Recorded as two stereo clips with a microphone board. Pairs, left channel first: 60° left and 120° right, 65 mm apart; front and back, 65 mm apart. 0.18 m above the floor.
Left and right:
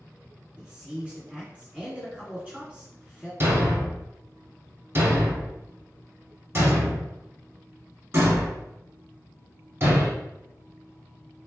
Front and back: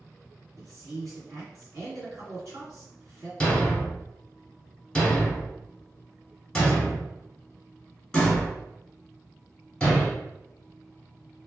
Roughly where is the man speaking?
Behind.